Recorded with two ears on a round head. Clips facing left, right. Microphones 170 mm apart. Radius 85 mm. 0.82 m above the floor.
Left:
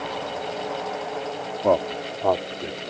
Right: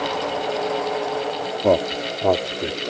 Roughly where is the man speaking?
Centre.